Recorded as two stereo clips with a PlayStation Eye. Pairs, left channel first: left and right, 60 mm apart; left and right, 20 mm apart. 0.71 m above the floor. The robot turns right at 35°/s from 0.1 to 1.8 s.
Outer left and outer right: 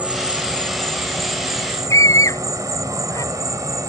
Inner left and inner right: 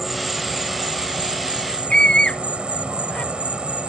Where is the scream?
65° left (ahead or behind).